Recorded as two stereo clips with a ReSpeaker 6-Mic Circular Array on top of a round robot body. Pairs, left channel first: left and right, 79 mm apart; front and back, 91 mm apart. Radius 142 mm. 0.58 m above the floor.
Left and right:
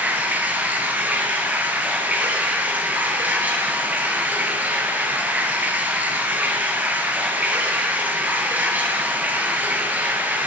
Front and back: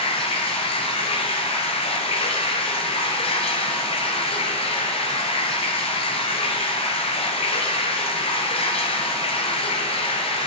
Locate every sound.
0.0 s running water: 20° right, 1.5 m